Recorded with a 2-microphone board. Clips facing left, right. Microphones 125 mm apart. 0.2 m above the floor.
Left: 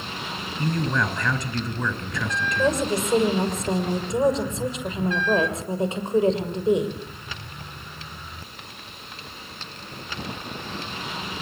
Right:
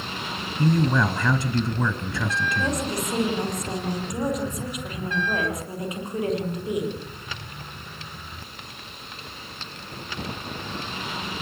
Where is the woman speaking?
30° left (ahead or behind), 6 m.